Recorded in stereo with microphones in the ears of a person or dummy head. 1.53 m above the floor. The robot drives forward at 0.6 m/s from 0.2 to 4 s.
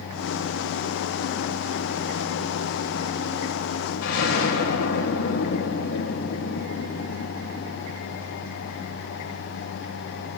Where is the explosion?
75° left (ahead or behind), 1.4 m.